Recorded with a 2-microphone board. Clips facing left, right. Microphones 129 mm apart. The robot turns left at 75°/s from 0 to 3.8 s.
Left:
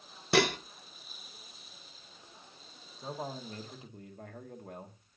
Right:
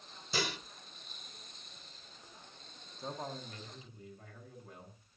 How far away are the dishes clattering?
About 0.6 m.